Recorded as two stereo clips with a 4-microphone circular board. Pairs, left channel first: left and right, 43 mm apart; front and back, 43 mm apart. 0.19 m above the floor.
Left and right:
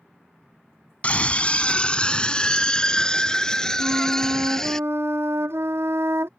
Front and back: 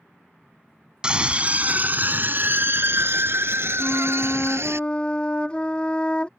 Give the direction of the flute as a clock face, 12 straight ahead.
2 o'clock.